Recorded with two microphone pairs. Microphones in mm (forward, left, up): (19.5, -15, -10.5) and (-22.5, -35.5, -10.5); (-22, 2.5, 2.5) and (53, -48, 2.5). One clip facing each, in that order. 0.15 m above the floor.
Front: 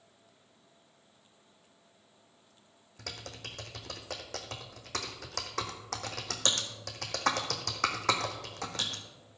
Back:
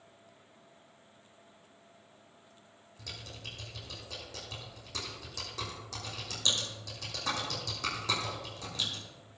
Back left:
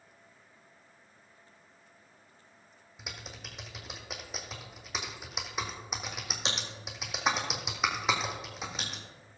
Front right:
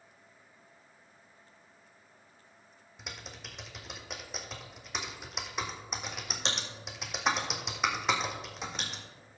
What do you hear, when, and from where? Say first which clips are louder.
3.0 s typing on a keyboard: front 2 dB, even; 60° left, 1.6 m